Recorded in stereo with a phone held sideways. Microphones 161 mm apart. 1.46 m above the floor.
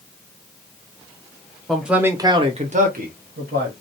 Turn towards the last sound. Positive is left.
turn(degrees=-75)  # may be behind; listen again after turning